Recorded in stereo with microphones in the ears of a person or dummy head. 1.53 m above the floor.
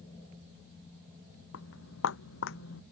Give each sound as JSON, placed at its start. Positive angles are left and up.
{"t": 1.5, "sound": "footsteps", "side_deg": 70}